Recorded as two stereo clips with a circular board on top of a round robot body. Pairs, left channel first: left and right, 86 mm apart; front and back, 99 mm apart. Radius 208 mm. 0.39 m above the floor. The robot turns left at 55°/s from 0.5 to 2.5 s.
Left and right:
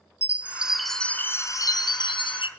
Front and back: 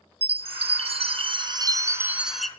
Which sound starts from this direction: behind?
A chime, at 0.2 s.